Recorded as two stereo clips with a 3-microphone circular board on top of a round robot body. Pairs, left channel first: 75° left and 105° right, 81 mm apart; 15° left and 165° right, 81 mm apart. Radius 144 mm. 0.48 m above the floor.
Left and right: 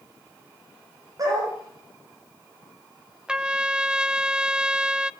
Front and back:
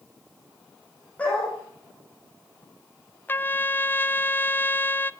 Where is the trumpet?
30° right, 0.9 m.